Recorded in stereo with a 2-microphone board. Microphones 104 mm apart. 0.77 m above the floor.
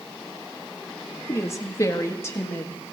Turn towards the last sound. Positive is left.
turn(degrees=25)  # may be behind; listen again after turning